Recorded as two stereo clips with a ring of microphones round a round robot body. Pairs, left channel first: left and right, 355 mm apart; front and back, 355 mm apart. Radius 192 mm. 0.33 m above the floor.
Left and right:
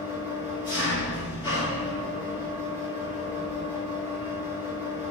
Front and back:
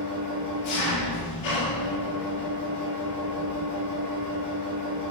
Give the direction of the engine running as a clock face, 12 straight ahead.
12 o'clock.